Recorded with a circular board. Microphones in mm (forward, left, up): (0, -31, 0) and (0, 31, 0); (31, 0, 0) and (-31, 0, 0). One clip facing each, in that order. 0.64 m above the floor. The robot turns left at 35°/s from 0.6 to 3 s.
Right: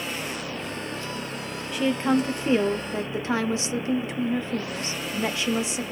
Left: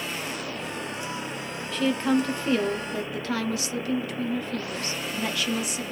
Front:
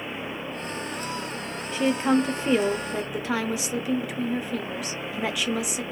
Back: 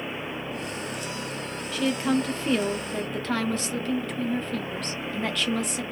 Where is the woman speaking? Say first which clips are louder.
Right 1 dB, front 3 dB; 25° right, 0.5 m; by 5.8 s 70° right, 0.5 m.